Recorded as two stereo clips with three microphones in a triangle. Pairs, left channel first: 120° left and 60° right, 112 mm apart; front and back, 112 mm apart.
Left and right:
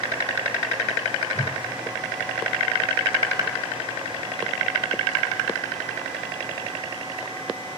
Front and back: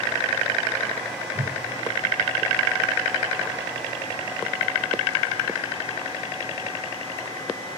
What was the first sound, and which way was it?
A whoosh, 160° left.